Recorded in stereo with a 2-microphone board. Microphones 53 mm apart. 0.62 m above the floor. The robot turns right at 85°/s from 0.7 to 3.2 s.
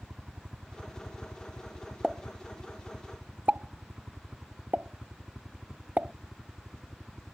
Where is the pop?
15° right (ahead or behind); by 6.1 s 30° right (ahead or behind).